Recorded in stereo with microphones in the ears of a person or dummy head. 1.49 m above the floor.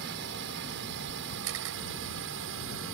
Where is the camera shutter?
75° right (ahead or behind).